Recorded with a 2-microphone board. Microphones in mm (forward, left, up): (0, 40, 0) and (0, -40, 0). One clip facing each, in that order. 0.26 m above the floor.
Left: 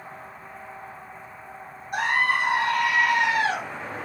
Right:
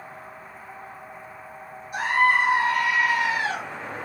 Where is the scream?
55° left (ahead or behind), 9.5 m.